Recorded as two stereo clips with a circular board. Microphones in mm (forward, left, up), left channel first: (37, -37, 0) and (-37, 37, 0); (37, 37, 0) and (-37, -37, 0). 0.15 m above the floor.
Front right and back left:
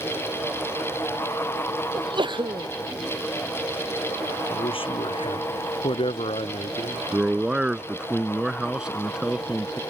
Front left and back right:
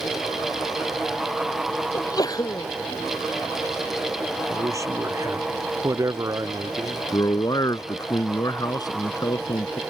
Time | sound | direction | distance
1.9 | a sneeze | 95° left | ?
4.5 | a man speaking | 75° right | ?
7.1 | a man speaking | 60° left | ?